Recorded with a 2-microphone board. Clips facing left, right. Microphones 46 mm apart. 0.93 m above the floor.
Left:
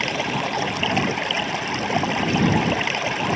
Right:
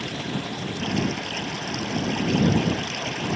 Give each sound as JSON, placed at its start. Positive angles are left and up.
{"t": 0.0, "sound": "running water", "side_deg": 80}